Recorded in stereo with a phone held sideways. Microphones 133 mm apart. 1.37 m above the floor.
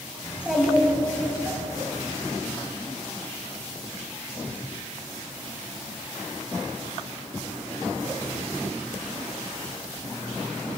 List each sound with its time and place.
0.2 s a child speaking: 10° right (ahead or behind), 4.5 m